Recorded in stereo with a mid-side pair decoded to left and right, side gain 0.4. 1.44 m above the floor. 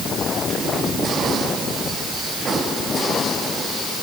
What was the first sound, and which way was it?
Only background noise.